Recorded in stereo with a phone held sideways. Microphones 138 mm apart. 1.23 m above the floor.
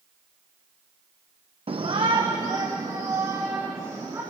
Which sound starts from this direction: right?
A shout, at 1.7 s.